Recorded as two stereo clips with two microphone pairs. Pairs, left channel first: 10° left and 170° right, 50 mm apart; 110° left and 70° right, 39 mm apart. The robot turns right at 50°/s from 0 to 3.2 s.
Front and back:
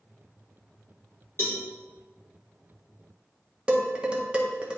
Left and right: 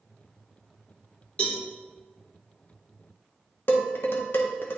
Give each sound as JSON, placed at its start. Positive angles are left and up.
{"t": 1.4, "sound": "a cowbell", "azimuth_deg": 50, "distance_m": 2.0}
{"t": 3.7, "sound": "dishes clattering", "azimuth_deg": 125, "distance_m": 1.0}